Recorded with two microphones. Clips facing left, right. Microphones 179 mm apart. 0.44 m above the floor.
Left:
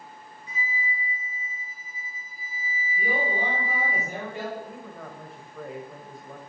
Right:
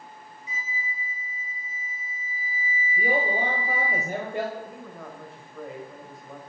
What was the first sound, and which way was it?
A flute, 60° left (ahead or behind).